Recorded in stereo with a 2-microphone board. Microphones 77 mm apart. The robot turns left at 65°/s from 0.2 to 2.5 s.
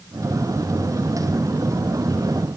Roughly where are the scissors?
No scissors in this recording.